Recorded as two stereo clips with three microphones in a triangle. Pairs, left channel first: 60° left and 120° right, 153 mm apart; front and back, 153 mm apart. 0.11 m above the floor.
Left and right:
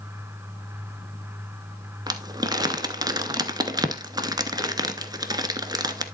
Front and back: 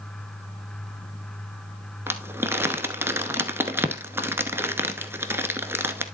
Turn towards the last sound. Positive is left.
turn(degrees=-125)